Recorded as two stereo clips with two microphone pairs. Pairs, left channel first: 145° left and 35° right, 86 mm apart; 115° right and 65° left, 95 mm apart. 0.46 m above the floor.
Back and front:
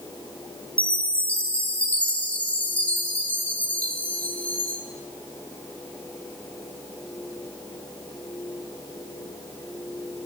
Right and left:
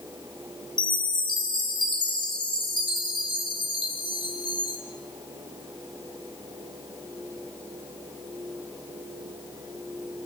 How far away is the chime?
About 1.5 m.